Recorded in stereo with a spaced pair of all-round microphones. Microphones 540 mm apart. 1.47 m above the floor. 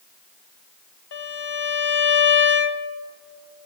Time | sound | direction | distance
1.1 | a violin | 50° left (ahead or behind) | 0.6 m